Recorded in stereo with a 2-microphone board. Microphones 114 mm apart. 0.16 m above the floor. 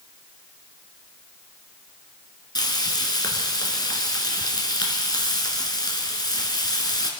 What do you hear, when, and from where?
2.5 s frying: 35° left (ahead or behind), 2.0 m